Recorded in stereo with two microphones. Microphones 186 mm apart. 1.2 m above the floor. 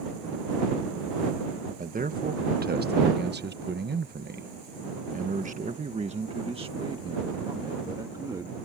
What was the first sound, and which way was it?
A man speaking, 45° right (ahead or behind).